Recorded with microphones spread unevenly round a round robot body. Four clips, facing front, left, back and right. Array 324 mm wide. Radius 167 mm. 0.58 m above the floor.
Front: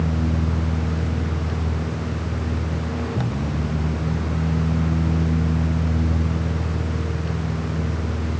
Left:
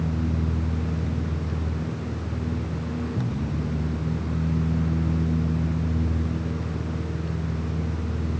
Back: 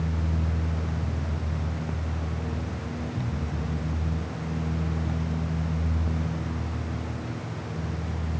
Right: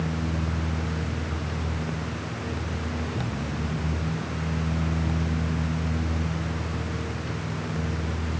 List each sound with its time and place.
Only background noise.